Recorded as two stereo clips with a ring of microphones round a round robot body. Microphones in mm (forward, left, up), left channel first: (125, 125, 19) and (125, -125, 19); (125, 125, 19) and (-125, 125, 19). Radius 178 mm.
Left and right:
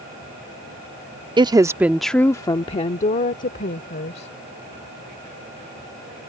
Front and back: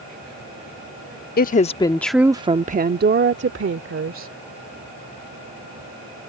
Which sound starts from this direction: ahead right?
A woman speaking, at 1.4 s.